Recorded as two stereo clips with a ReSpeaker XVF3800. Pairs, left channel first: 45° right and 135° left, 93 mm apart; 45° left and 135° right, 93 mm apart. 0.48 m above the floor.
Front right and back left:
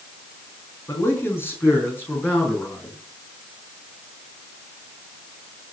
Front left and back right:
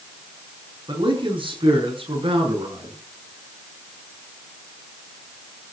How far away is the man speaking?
About 6 m.